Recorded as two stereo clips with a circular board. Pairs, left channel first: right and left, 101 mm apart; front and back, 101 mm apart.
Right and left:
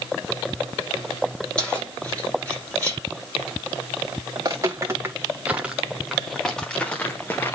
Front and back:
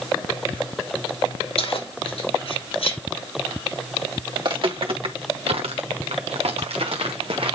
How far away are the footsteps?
About 2 m.